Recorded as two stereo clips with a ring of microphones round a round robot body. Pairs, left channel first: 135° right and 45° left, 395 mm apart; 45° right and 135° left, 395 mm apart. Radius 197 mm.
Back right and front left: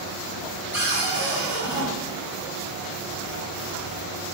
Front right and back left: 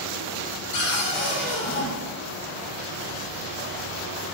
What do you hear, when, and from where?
0.7 s a cupboard door: 40° right, 1.0 m